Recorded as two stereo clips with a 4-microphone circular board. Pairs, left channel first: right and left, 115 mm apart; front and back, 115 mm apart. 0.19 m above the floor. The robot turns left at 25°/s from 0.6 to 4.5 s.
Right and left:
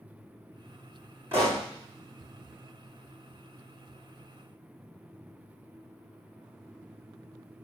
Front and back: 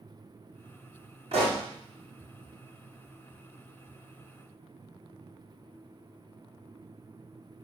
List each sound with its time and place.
1.3 s a pop: 160° left, 3.5 m; by 1.6 s 155° left, 3.5 m